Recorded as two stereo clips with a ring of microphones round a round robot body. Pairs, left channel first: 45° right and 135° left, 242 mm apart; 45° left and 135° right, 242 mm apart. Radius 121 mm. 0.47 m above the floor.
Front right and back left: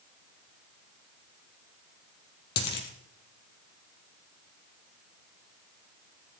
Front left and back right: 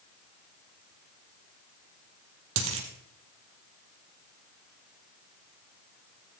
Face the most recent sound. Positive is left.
turn(degrees=-95)